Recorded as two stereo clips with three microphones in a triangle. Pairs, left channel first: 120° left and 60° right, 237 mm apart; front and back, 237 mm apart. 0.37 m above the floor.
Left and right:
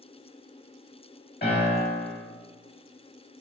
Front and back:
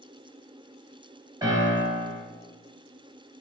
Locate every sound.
1.4 s a piano: 110° left, 1.2 m